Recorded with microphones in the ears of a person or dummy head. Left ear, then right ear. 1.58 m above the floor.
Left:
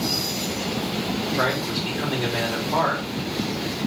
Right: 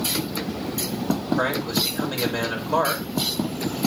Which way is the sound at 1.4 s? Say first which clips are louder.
Even; 85° right.